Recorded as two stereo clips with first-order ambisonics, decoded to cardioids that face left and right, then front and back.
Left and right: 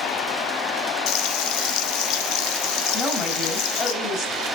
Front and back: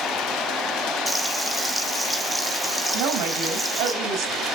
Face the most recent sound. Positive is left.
turn(degrees=160)